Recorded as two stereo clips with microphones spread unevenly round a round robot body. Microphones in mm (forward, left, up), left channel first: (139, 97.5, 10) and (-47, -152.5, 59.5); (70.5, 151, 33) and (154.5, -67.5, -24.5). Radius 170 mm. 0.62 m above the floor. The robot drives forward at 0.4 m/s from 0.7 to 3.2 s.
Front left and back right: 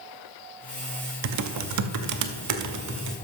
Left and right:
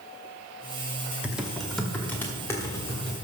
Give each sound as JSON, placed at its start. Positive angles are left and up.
{"t": 1.2, "sound": "typing on a keyboard", "azimuth_deg": -135, "distance_m": 0.6}